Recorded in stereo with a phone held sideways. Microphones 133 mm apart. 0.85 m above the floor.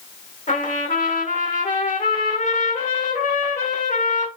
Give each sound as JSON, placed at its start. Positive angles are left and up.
{"t": 0.5, "sound": "a trumpet", "side_deg": 85, "distance_m": 1.4}